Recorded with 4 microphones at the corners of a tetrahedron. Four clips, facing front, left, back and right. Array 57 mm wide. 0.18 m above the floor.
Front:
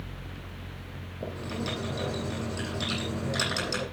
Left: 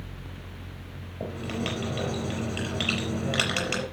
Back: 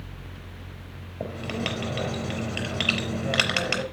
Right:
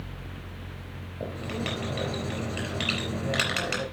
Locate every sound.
1.2 s writing: straight behind, 4 m